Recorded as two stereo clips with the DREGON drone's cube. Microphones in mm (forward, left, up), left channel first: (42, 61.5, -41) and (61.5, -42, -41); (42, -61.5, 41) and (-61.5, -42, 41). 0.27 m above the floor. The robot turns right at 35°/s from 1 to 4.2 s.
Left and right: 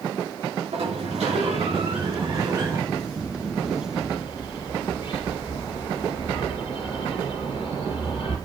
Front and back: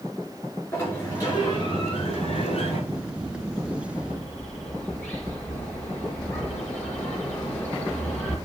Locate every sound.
0.7 s a sliding door: 75° right, 9.5 m; by 2.8 s 10° right, 9.5 m
2.9 s a bird: 15° left, 5 m; by 8.4 s 60° left, 5 m